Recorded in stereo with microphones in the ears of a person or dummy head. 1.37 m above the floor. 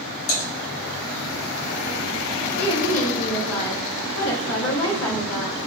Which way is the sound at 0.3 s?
55° left (ahead or behind).